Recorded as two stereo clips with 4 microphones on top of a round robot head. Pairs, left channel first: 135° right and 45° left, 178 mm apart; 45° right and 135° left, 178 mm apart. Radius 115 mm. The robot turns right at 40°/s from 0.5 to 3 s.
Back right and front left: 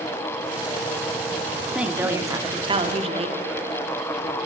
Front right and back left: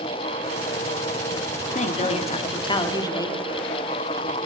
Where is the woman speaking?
40° right, 1.6 m; by 3.4 s 10° left, 1.6 m.